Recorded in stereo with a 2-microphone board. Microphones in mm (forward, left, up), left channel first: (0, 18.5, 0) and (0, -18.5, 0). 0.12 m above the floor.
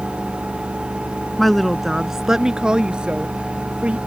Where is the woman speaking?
5° left (ahead or behind); by 4.0 s 30° right (ahead or behind).